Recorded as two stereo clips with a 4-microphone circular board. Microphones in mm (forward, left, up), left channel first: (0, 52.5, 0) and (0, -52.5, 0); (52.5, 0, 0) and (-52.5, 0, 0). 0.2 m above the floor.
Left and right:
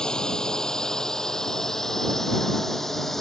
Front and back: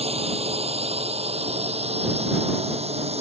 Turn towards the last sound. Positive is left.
turn(degrees=180)